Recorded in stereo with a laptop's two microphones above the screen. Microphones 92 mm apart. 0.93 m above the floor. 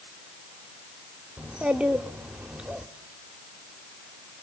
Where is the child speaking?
10° right (ahead or behind), 1.1 m.